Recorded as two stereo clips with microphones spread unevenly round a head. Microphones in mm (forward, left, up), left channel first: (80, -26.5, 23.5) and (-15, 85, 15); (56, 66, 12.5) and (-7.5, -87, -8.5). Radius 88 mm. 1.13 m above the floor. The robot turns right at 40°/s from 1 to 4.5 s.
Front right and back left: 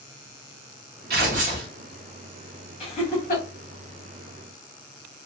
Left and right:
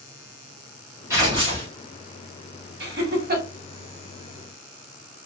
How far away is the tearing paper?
About 0.8 m.